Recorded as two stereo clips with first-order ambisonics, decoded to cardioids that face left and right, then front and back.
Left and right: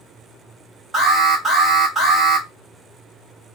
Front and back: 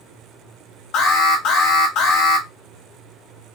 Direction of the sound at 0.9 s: 5° right.